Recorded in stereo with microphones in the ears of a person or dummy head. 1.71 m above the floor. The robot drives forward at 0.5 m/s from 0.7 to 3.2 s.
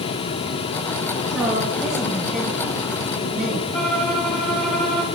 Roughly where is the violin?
Centre.